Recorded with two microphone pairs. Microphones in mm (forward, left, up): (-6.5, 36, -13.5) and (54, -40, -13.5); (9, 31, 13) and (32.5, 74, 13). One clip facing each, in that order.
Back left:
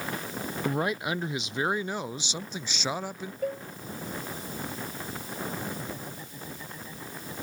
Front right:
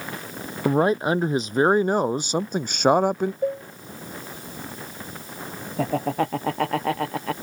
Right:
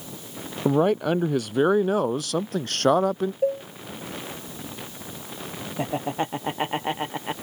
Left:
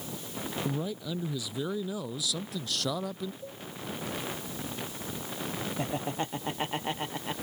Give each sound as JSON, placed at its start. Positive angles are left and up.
{"t": 0.7, "sound": "a man speaking", "azimuth_deg": -105}
{"t": 3.4, "sound": "a cowbell", "azimuth_deg": -115}
{"t": 5.8, "sound": "laughter", "azimuth_deg": -55}